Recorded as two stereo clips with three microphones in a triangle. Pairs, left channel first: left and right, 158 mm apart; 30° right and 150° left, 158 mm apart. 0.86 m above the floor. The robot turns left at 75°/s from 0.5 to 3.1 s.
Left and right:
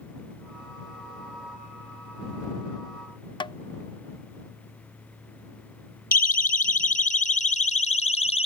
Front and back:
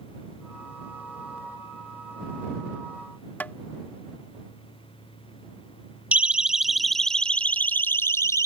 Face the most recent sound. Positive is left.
turn(degrees=40)